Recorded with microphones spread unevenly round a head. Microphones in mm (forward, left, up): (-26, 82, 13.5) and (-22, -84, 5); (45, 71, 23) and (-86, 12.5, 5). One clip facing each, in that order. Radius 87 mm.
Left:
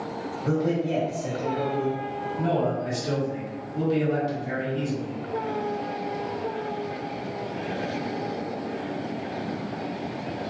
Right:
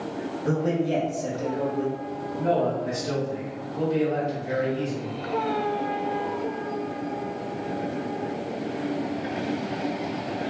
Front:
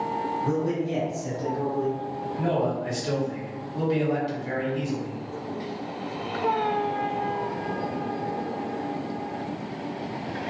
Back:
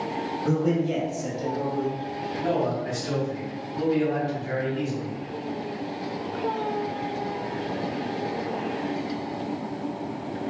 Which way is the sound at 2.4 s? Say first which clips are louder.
Right 2 dB, even; 75° left.